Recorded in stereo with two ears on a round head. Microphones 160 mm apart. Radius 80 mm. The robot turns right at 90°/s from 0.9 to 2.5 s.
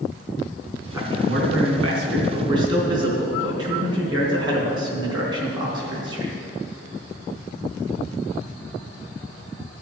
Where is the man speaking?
165° right, 3.5 m; by 6.3 s 25° right, 3.5 m.